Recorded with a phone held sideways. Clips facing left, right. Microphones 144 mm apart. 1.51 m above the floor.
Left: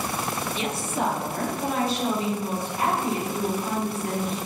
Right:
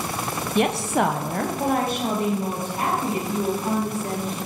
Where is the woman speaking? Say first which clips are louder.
Right 10 dB; 55° right (ahead or behind), 0.5 m; by 4.4 s 40° right (ahead or behind), 3.5 m.